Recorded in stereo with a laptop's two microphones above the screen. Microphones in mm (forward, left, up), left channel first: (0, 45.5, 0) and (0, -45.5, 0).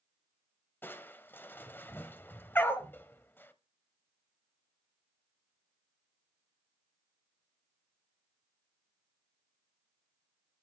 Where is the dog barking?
25° left (ahead or behind), 1.4 m.